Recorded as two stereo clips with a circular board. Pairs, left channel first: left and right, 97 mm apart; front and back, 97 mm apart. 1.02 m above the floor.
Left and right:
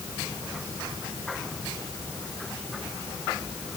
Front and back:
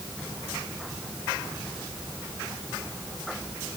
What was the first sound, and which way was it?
Only background noise.